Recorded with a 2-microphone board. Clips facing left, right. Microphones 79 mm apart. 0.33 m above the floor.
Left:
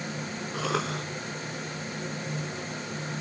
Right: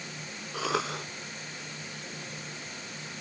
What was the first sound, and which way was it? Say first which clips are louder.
A cough: even; 5° right (ahead or behind).